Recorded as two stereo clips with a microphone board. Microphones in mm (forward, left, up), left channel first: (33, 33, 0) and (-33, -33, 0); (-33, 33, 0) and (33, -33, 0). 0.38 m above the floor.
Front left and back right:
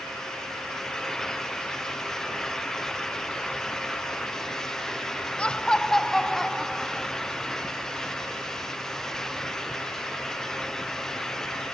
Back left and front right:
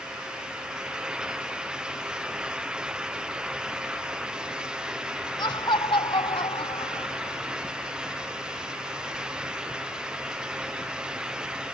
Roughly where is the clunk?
No clunk in this recording.